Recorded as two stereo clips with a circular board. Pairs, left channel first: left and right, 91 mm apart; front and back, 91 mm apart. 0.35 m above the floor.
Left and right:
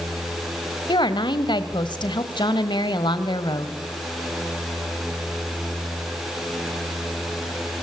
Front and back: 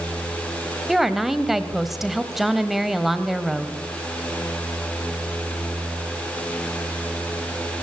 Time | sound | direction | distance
0.9 | a woman speaking | 95° left | 1.4 m